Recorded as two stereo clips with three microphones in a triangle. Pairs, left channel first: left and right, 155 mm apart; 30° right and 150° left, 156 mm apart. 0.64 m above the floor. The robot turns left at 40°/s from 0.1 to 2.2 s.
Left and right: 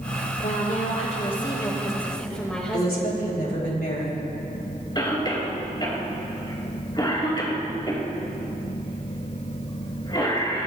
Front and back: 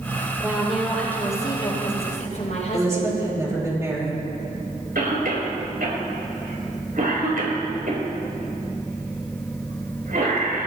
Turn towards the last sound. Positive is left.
turn(degrees=150)